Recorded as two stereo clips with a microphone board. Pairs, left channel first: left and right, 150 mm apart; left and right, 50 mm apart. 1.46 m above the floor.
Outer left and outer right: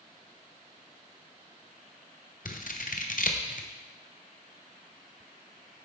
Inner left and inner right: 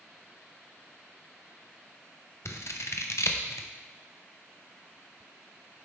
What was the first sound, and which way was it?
Scissors, 65° left (ahead or behind).